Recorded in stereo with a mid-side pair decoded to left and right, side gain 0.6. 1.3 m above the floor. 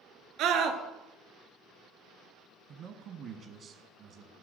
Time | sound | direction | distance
0.4 | a scream | 70° right | 1.6 m
2.7 | a man speaking | 60° right | 1.1 m